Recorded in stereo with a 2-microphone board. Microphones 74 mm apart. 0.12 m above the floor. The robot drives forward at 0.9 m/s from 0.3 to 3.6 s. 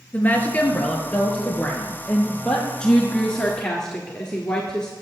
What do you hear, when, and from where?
0.1 s a woman speaking: 25° left (ahead or behind), 2 m; by 2.7 s 10° left (ahead or behind), 4 m
2.8 s a woman speaking: 15° left (ahead or behind), 1.2 m; by 4.9 s 10° left (ahead or behind), 1.7 m